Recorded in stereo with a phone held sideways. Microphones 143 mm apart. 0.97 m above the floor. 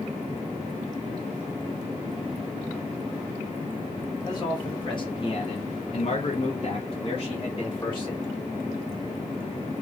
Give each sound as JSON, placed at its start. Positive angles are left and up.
{"t": 4.2, "sound": "a man speaking", "side_deg": 30, "distance_m": 1.6}